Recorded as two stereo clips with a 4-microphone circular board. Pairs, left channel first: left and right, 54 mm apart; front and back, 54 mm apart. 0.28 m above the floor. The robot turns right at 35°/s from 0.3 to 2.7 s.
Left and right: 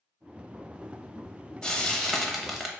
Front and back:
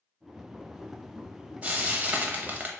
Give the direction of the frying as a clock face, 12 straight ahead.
7 o'clock.